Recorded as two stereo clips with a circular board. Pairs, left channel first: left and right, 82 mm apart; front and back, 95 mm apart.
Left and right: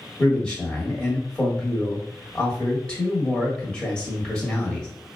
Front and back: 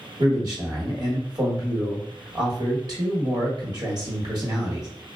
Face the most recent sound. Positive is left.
turn(degrees=165)